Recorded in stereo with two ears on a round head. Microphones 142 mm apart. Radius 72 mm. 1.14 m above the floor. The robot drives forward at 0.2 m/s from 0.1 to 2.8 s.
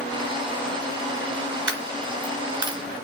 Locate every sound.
1.7 s a dropped coin: 25° right (ahead or behind), 1.4 m